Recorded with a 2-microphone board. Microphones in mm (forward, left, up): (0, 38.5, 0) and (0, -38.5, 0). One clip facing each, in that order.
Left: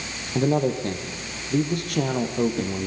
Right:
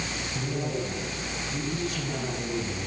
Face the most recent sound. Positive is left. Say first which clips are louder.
# left 11 dB
turn(degrees=65)  # may be behind; listen again after turning